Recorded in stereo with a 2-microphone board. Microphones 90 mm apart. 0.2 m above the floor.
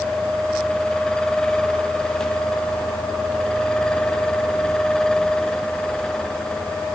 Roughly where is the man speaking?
I don't hear a man speaking.